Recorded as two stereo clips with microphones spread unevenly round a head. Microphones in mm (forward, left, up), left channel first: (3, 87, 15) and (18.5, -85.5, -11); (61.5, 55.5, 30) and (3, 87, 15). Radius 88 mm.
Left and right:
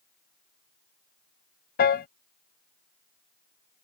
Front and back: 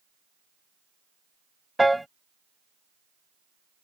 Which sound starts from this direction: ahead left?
A piano, at 1.8 s.